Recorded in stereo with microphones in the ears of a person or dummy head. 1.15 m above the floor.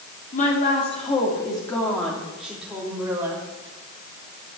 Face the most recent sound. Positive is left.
turn(degrees=-15)  # may be behind; listen again after turning